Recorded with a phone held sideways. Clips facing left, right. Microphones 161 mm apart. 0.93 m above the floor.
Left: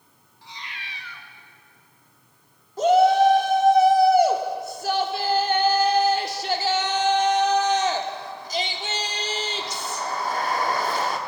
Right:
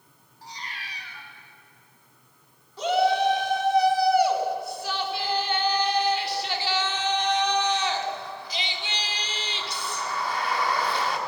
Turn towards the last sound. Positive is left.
turn(degrees=45)  # may be behind; listen again after turning